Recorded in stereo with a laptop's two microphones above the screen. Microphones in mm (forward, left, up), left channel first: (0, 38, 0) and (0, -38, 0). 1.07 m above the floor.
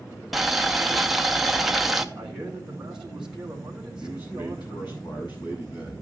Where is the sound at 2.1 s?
10° right (ahead or behind), 3 m.